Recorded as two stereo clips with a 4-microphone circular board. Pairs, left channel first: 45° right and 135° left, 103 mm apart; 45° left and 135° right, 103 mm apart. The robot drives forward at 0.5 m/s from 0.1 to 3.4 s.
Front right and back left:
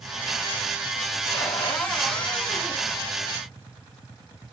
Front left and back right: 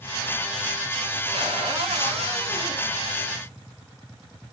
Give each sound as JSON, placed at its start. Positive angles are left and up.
{"t": 1.3, "sound": "a cupboard door", "azimuth_deg": -120, "distance_m": 4.0}